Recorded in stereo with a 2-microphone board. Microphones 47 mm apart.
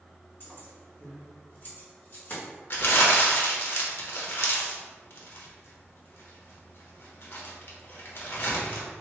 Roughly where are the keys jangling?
Left.